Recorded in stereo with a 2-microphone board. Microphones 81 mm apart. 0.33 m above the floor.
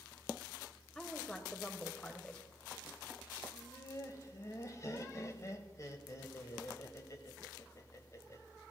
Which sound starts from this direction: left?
Laughter, at 3.5 s.